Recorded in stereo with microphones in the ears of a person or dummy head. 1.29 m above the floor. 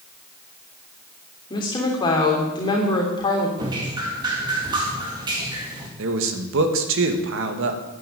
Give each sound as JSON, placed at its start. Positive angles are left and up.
{"t": 1.5, "sound": "a woman speaking", "side_deg": 20, "distance_m": 3.0}
{"t": 3.6, "sound": "dripping", "side_deg": -20, "distance_m": 2.0}
{"t": 6.0, "sound": "a man speaking", "side_deg": -75, "distance_m": 2.0}